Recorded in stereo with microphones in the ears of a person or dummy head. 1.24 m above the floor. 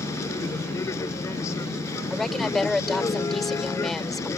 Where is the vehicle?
20° left (ahead or behind).